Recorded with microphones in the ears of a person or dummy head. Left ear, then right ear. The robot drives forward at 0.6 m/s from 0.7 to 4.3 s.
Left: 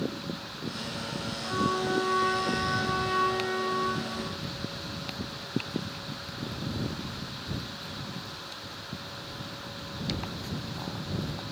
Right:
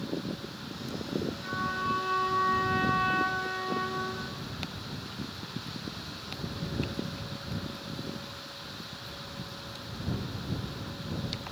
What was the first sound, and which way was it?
A trumpet, 10° right (ahead or behind).